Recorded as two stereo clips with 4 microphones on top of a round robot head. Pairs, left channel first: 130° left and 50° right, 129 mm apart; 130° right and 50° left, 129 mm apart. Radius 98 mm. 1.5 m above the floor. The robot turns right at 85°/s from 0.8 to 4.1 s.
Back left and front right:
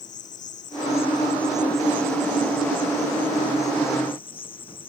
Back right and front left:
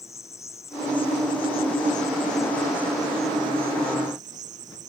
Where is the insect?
160° left; by 4.9 s 80° left.